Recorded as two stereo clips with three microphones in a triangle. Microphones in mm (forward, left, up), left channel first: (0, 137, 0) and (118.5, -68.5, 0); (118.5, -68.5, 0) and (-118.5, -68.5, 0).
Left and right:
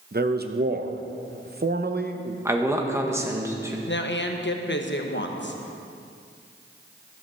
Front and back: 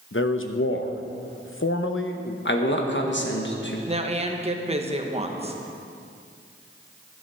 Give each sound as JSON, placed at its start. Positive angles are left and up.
{"t": 0.1, "sound": "a man speaking", "azimuth_deg": -20, "distance_m": 0.8}
{"t": 2.5, "sound": "a man speaking", "azimuth_deg": 15, "distance_m": 1.4}
{"t": 3.9, "sound": "a woman speaking", "azimuth_deg": 125, "distance_m": 1.0}